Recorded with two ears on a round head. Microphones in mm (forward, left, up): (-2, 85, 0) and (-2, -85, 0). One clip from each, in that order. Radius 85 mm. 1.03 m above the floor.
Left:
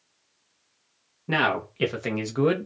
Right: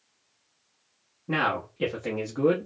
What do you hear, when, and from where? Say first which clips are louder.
1.3 s a man speaking: left 3 dB; 75° left (ahead or behind), 1.2 m; by 2.6 s 60° left (ahead or behind), 1.0 m